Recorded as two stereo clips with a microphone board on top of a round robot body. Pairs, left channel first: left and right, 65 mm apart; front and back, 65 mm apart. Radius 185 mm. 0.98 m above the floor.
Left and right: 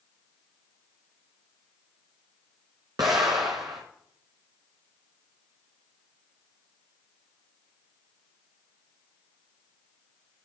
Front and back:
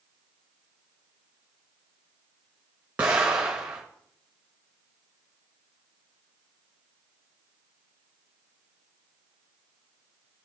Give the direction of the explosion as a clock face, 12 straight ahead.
4 o'clock.